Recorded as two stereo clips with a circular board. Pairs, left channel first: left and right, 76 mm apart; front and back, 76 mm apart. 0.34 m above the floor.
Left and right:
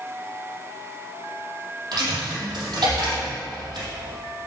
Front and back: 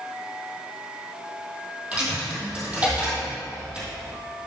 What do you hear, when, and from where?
1.9 s a dropped coin: 105° right, 2.5 m